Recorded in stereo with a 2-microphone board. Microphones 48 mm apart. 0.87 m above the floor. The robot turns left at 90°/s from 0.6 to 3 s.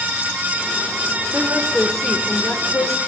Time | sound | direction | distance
1.3 | a woman speaking | 130° right | 3 m